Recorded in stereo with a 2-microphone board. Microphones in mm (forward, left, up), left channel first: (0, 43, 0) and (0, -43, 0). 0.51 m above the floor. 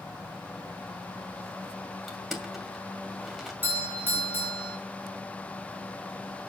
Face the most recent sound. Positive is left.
turn(degrees=-20)  # may be behind; listen again after turning